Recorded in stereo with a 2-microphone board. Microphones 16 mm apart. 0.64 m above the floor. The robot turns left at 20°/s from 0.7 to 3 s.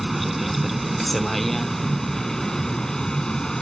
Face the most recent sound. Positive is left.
turn(degrees=140)